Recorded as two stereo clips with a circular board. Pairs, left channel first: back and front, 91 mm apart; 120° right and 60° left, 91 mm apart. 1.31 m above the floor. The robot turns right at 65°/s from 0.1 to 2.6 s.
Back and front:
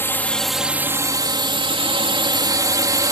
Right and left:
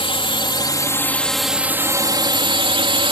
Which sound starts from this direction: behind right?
A drone, at 0.0 s.